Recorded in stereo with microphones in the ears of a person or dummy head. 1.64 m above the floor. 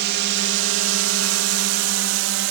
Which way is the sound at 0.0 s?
55° right (ahead or behind).